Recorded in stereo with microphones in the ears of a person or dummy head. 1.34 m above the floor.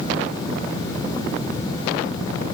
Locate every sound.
Only background noise.